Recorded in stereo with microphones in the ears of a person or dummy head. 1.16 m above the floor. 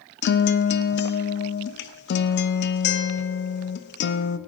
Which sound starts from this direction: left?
A guitar, at 0.2 s.